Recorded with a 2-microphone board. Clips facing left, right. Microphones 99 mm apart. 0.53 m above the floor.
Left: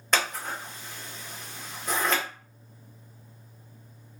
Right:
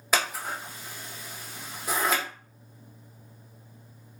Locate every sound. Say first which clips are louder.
0.1 s scissors: even; 5° right (ahead or behind), 1.6 m